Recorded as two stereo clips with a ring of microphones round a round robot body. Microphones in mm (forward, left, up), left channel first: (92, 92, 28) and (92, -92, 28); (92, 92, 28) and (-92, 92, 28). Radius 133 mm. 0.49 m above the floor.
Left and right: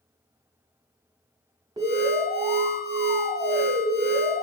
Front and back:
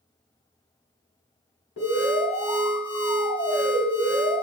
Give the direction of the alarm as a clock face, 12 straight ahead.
1 o'clock.